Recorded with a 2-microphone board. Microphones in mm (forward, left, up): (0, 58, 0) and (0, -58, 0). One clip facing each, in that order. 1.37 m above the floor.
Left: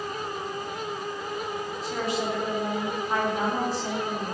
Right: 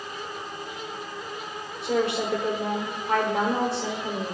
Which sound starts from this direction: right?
A woman speaking, at 1.8 s.